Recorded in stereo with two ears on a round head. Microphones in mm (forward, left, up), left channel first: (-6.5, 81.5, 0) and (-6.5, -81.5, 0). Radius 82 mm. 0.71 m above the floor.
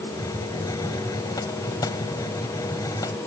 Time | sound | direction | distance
0.1 | a hiss | 20° left (ahead or behind) | ?